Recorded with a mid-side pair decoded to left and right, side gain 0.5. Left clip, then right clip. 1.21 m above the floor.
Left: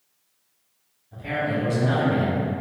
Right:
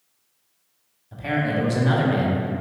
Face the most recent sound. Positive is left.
turn(degrees=-20)